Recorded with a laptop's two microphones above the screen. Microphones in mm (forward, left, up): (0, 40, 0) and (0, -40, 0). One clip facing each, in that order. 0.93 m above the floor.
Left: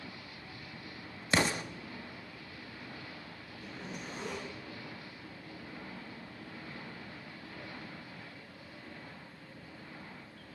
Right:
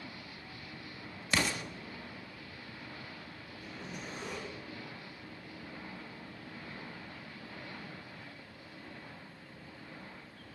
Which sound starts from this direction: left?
An explosion, at 1.3 s.